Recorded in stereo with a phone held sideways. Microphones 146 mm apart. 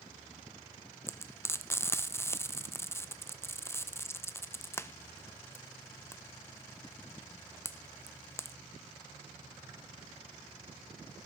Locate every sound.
1.1 s frying: 15° left (ahead or behind), 0.7 m